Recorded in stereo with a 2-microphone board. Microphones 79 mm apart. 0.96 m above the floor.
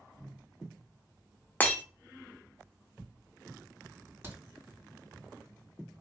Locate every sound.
0.2 s a cupboard door: 20° right (ahead or behind), 1.5 m
1.6 s breaking glass: 20° left (ahead or behind), 0.6 m
4.2 s a crack: 30° right (ahead or behind), 1.7 m